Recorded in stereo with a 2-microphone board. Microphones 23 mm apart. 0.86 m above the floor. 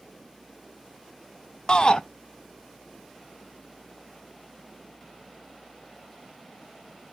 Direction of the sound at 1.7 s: 40° left (ahead or behind).